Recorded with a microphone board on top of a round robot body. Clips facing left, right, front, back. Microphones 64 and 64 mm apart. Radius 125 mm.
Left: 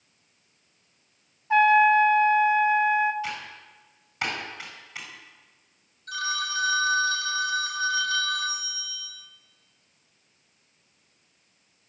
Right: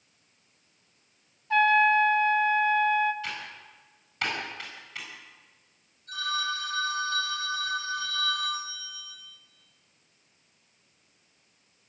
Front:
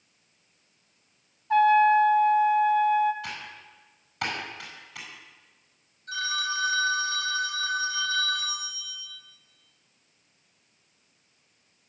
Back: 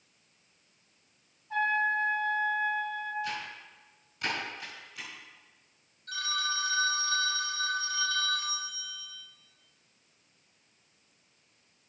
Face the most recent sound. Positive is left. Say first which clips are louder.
# left 1 dB, front 3 dB
turn(degrees=75)